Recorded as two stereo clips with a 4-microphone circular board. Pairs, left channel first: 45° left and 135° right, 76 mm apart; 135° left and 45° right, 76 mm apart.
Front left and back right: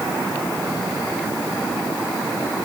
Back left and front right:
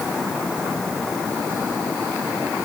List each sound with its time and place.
Only background noise.